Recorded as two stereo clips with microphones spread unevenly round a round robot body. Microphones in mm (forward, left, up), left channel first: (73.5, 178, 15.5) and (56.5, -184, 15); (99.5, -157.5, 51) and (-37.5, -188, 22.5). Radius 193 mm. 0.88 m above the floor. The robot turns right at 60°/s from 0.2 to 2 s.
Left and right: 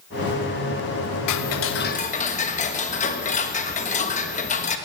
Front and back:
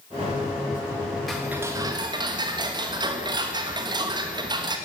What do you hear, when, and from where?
1.3 s ticking: 110° left, 1.2 m; by 4.8 s 155° left, 1.2 m